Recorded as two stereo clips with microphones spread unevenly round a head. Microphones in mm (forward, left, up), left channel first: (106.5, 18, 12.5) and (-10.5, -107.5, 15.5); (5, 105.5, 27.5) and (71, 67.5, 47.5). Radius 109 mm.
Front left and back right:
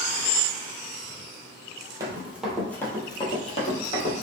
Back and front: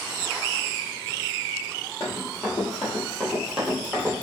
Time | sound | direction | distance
2.0 | running footsteps | 115° right | 0.9 m